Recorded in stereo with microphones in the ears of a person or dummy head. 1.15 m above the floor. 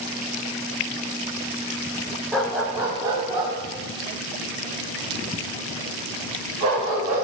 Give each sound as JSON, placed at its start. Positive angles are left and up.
{"t": 2.3, "sound": "a dog barking", "side_deg": 0, "distance_m": 0.9}